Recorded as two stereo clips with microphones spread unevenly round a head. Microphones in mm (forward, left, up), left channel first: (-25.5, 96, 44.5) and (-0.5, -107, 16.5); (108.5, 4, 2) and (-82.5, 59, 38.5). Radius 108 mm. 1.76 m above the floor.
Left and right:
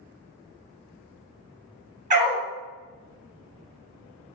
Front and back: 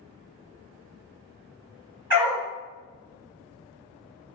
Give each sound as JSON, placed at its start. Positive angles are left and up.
{"t": 2.1, "sound": "a dog barking", "azimuth_deg": -135, "distance_m": 1.9}